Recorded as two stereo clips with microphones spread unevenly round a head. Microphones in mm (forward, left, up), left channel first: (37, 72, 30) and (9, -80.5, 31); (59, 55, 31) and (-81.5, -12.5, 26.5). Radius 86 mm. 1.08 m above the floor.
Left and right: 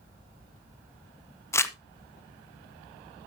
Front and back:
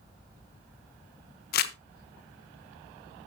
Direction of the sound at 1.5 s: 10° left.